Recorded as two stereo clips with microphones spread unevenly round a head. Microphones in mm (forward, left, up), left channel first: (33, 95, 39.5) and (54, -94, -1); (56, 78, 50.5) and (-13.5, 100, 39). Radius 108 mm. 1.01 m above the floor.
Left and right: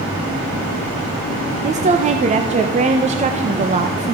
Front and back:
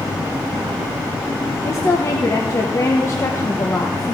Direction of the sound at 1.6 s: 65° right.